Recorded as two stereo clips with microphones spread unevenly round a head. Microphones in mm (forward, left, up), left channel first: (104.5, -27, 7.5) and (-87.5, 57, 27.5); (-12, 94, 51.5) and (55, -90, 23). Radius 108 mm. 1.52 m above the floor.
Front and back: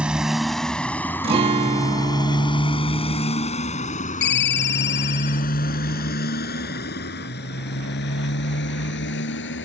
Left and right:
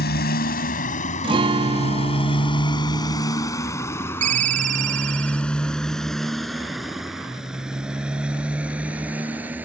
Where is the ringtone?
20° right.